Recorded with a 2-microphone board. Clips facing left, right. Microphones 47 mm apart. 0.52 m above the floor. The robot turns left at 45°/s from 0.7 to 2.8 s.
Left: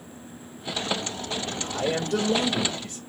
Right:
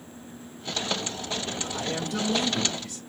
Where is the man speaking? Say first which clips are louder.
Left 4 dB; 95° left, 1.8 m; by 3.0 s 40° left, 1.8 m.